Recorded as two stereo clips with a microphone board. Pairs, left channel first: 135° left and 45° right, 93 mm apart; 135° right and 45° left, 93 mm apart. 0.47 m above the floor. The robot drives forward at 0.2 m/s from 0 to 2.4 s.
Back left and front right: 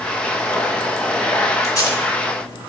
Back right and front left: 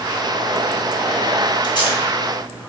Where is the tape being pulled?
170° right, 1.2 m.